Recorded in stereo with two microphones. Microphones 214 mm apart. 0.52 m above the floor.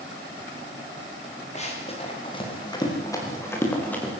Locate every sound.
1.6 s running footsteps: 30° left (ahead or behind), 6.5 m; by 4.1 s 5° left (ahead or behind), 7 m